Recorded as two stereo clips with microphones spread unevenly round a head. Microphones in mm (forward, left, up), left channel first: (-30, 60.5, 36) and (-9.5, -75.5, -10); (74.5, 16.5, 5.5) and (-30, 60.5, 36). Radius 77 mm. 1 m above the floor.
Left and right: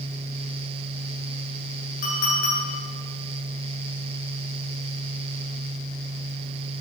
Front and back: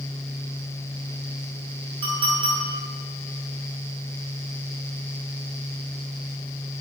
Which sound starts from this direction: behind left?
A clink, at 2.0 s.